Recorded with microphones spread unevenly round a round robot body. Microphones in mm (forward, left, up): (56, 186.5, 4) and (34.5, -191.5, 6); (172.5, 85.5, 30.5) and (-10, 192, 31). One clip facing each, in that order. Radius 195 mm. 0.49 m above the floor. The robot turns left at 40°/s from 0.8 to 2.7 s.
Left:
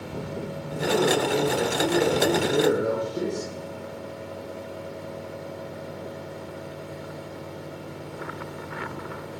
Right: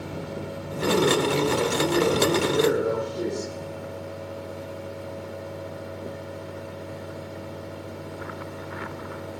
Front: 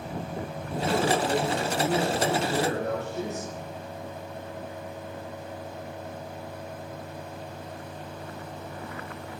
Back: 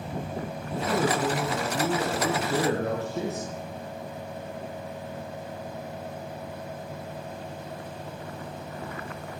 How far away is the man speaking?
About 8.5 m.